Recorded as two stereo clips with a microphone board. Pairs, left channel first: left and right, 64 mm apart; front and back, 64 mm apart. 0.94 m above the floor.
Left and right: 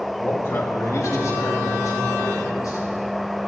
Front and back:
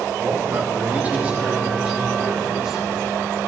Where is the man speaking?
145° left, 1.4 m; by 2.9 s 100° left, 4.5 m.